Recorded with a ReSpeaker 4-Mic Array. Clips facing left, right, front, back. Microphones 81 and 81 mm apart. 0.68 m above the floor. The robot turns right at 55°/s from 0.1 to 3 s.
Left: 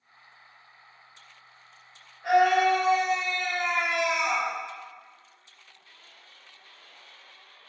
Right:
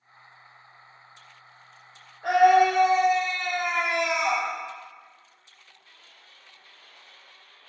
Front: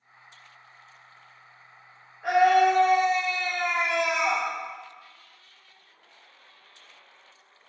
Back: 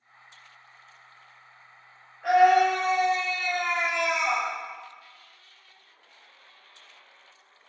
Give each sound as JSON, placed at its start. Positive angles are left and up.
{"t": 2.2, "sound": "a scream", "azimuth_deg": -85, "distance_m": 2.5}